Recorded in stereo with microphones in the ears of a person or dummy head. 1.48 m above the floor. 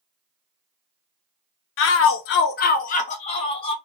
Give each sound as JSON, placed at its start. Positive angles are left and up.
{"t": 1.8, "sound": "a shout", "side_deg": 65, "distance_m": 0.5}